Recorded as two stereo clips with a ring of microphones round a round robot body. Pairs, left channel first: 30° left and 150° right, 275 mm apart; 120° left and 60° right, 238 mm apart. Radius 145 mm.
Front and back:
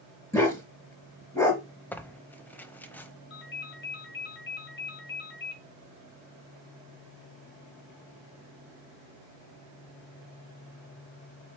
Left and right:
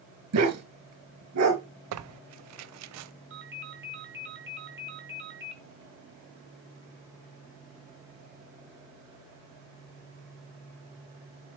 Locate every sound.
0.3 s a dog barking: 50° right, 4.5 m
1.9 s tearing paper: 55° right, 0.6 m
3.3 s a ringtone: 25° right, 2.5 m